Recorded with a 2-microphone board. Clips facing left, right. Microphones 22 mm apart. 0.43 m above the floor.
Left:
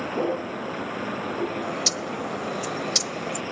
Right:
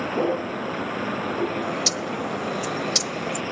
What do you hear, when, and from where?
0.0 s a vehicle: 15° right (ahead or behind)
1.6 s a bird: 5° right (ahead or behind)